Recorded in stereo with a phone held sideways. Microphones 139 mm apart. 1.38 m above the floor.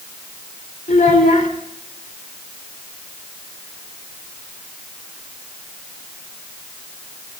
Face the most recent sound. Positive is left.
turn(degrees=80)